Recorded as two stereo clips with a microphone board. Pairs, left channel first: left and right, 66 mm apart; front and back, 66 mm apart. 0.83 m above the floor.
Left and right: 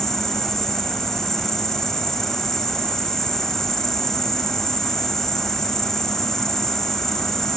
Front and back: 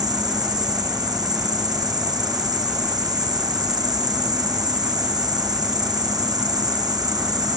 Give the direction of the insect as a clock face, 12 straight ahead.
6 o'clock.